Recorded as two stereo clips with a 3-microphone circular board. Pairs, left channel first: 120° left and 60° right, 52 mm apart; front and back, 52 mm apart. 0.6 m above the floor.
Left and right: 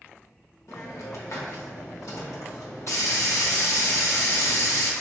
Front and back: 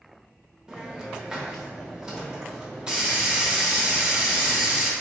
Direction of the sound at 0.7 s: 105° left.